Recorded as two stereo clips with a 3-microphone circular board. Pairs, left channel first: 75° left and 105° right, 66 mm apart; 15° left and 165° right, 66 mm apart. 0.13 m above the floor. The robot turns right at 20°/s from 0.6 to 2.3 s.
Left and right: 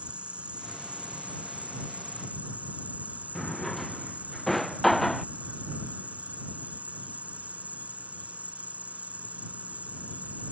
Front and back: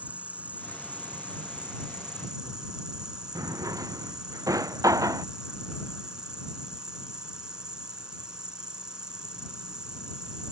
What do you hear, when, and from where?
0.0 s an insect: 140° right; by 10.5 s 110° right
3.4 s a drawer: 160° left